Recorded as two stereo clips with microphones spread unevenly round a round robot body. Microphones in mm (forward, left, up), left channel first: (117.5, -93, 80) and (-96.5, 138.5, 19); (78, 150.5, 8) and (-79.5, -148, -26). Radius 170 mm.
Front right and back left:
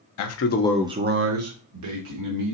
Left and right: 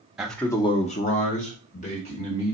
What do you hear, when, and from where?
0.2 s a man speaking: 35° right, 0.8 m; by 2.5 s 135° left, 2 m